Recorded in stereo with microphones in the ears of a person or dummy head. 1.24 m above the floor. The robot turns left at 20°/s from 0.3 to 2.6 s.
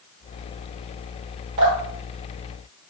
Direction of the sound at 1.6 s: 45° right (ahead or behind).